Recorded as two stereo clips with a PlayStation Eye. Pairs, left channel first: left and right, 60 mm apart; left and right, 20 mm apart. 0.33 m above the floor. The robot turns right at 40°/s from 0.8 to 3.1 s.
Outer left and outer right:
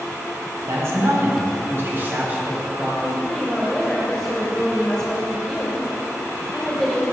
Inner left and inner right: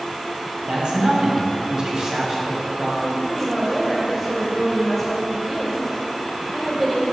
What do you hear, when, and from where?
0.7 s a man speaking: 95° right, 1.7 m; by 2.9 s 10° right, 1.7 m
3.0 s a woman speaking: 15° left (ahead or behind), 0.9 m; by 7.0 s 10° left (ahead or behind), 0.9 m